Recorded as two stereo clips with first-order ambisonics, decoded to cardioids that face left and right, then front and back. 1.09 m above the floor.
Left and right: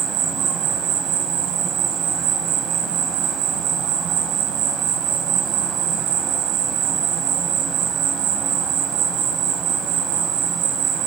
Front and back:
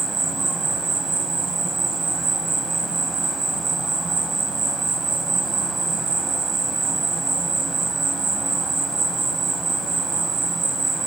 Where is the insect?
100° right, 1.3 m.